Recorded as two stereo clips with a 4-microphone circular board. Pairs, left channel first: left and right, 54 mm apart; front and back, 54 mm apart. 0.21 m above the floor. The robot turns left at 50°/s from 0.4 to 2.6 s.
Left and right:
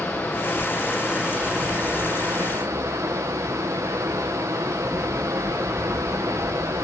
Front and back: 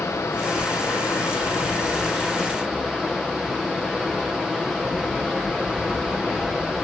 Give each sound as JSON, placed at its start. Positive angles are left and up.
{"t": 0.0, "sound": "running water", "azimuth_deg": 35, "distance_m": 2.5}